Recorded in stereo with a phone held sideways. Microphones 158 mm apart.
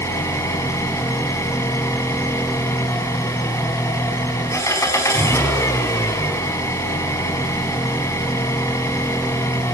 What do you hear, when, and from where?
0.0 s an engine running: 20° left (ahead or behind), 4.5 m